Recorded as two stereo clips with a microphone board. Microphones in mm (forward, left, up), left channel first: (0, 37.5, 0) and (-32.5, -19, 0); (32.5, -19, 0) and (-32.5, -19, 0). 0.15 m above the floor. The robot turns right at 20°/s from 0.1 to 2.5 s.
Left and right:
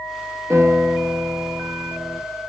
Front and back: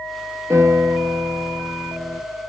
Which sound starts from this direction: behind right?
A piano, at 0.5 s.